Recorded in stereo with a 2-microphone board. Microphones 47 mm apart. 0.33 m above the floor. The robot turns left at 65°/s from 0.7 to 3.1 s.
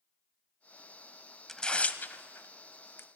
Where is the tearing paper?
10° left (ahead or behind), 0.6 m; by 3.1 s 60° left (ahead or behind), 0.6 m.